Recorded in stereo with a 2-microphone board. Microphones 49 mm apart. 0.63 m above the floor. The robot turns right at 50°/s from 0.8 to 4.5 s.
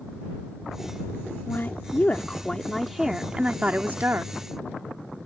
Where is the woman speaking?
110° left; by 4.3 s 105° right.